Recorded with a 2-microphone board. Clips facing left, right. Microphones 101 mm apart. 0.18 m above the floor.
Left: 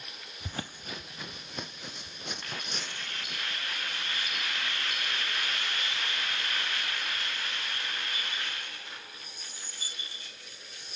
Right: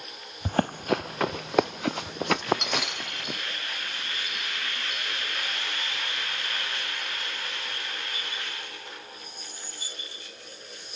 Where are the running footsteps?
50° right (ahead or behind); by 3.4 s 85° right.